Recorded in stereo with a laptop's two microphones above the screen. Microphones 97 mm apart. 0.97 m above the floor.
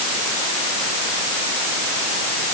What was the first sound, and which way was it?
Only background noise.